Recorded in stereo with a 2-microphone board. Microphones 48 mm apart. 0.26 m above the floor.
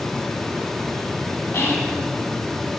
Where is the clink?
No clink in this recording.